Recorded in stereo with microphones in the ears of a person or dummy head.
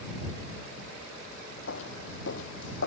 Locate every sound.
1.7 s footsteps: 75° left (ahead or behind)